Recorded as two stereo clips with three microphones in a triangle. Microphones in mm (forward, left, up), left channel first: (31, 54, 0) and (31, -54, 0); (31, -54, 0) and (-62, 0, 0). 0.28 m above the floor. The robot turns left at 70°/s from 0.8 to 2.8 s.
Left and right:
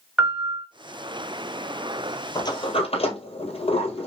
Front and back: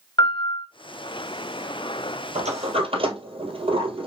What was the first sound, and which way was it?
A piano, 20° right.